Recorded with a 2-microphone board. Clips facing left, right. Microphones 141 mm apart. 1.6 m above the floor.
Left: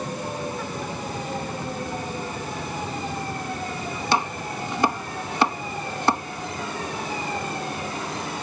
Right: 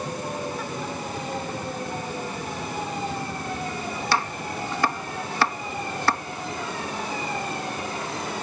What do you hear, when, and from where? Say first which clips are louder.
4.1 s chopping: left 3 dB; 20° left (ahead or behind)